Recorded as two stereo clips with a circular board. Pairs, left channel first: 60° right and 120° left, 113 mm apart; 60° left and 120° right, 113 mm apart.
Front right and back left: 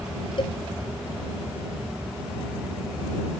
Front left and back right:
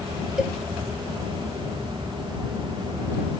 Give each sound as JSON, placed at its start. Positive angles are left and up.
{"t": 0.4, "sound": "a cowbell", "azimuth_deg": -40}